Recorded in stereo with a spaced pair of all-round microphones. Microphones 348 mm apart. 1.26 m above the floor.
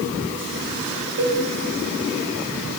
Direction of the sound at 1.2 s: 45° right (ahead or behind).